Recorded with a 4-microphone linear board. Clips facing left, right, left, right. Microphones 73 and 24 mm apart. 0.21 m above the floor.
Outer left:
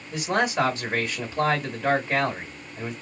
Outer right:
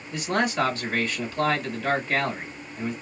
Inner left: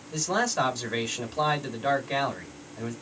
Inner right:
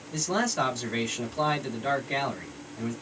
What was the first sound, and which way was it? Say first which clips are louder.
A man speaking: outer left 1 dB, inner left 1 dB; 20° left (ahead or behind).